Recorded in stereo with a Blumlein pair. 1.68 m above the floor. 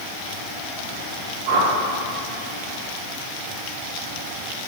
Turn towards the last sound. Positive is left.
turn(degrees=-50)